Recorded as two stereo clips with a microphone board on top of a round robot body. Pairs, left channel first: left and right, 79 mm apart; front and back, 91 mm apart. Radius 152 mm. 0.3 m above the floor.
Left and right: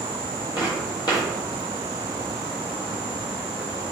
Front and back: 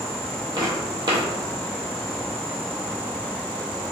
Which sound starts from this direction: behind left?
Footsteps, at 0.6 s.